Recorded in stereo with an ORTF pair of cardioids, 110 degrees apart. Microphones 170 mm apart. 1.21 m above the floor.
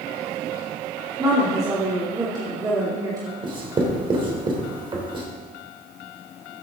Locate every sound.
1.2 s a woman speaking: 20° right, 2.5 m
3.4 s writing: 30° right, 3 m